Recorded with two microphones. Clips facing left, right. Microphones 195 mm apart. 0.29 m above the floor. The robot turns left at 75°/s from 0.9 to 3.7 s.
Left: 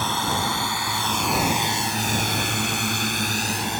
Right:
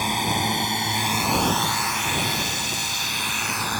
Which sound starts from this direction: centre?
A drone, at 0.0 s.